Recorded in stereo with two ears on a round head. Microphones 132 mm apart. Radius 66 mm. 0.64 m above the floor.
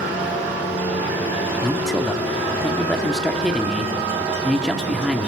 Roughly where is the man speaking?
Centre.